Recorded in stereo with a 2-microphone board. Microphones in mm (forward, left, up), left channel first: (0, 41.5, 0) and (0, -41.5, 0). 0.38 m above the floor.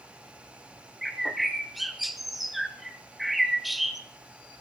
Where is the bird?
Centre (ahead or behind), 0.8 m.